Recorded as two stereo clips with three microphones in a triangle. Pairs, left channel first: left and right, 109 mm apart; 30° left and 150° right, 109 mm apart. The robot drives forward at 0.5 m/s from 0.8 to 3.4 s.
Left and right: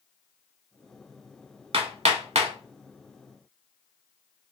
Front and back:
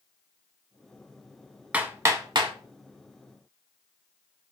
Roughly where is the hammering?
Right.